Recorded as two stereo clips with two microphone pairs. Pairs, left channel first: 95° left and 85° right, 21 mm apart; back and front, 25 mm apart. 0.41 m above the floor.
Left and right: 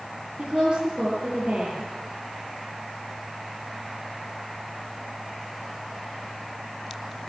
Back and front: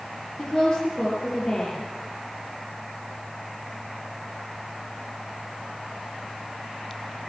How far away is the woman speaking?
About 8 m.